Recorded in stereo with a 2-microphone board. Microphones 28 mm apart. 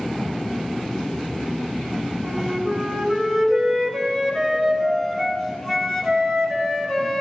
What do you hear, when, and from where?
2.2 s a flute: 15° left (ahead or behind), 2.5 m